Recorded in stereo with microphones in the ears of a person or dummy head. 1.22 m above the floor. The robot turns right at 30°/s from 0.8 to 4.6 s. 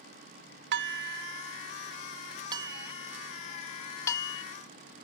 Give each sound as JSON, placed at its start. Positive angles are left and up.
{"t": 0.7, "sound": "dishes clattering", "side_deg": -70}